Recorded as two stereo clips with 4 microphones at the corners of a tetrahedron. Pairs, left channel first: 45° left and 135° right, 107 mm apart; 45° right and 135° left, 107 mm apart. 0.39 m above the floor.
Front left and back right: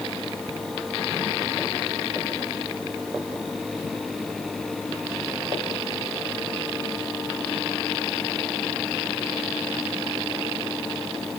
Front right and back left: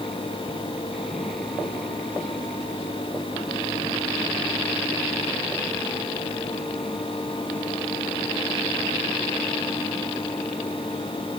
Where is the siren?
No siren in this recording.